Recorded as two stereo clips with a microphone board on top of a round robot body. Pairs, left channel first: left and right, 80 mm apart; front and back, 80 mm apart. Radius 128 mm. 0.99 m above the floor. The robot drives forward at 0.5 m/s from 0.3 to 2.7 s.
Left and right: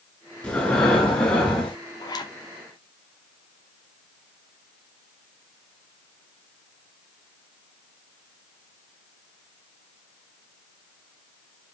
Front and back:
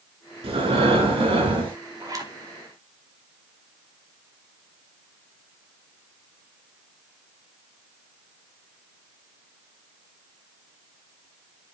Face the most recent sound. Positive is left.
turn(degrees=135)